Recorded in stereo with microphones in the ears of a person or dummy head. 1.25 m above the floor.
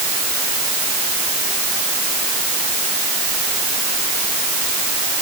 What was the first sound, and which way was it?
Only background noise.